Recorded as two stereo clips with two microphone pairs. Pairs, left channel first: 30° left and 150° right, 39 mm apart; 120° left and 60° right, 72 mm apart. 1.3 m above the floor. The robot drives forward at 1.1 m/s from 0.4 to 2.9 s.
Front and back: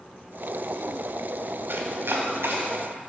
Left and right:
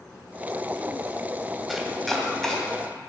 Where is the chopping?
150° right, 2.5 m; by 2.6 s 160° right, 3 m.